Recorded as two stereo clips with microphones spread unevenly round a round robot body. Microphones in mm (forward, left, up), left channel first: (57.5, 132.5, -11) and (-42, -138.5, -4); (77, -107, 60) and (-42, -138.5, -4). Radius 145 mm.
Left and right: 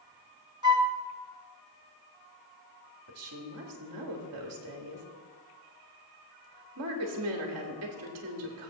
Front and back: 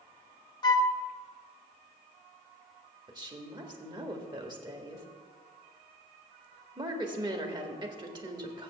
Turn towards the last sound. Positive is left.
turn(degrees=-145)